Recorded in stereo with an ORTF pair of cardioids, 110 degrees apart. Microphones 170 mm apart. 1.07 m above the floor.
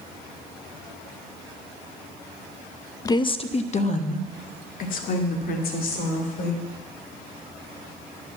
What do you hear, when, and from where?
3.0 s a woman speaking: 20° left, 0.7 m; by 6.6 s 60° left, 3.5 m